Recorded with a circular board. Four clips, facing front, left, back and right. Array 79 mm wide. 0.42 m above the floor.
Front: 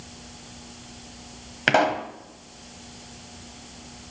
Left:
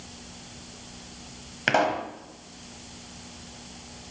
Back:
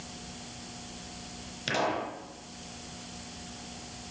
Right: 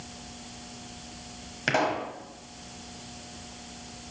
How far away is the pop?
About 1.1 m.